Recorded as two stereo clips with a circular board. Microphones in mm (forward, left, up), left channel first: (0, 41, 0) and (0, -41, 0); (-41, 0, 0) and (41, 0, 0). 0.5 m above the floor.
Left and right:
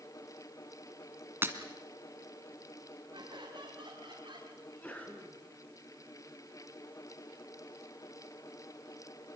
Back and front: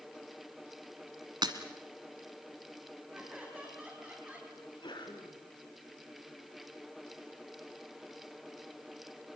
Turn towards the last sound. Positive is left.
turn(degrees=160)